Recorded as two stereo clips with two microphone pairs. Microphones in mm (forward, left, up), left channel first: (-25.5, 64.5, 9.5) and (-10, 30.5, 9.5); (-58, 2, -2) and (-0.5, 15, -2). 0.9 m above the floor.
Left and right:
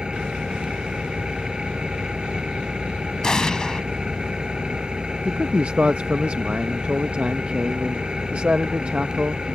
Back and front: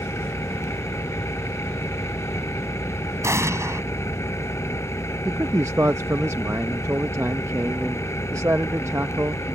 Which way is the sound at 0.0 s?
130° right.